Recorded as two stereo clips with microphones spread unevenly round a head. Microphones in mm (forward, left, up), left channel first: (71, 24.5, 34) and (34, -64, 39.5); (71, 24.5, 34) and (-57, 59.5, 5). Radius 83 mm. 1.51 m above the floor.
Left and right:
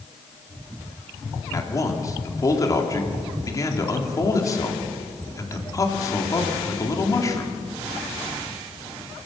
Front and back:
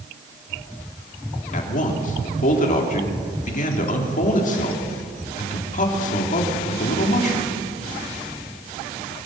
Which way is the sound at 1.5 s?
10° left.